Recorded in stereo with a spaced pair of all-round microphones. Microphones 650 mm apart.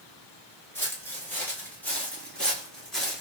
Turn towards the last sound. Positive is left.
turn(degrees=0)  # may be behind; listen again after turning